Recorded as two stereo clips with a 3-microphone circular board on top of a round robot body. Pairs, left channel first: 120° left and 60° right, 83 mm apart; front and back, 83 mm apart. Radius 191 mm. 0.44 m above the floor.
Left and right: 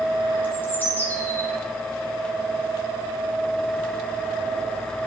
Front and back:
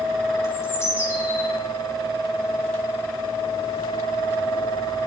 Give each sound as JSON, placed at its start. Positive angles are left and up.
{"t": 0.4, "sound": "a bird", "azimuth_deg": 55, "distance_m": 3.0}